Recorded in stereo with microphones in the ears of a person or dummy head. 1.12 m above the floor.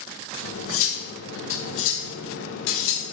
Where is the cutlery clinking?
75° left (ahead or behind), 0.6 m.